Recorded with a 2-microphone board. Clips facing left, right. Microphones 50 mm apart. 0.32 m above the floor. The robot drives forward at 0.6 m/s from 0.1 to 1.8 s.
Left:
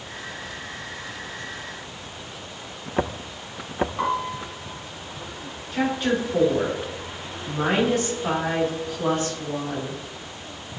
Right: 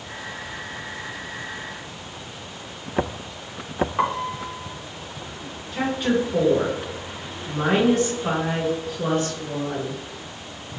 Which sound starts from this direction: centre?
A woman speaking, at 5.7 s.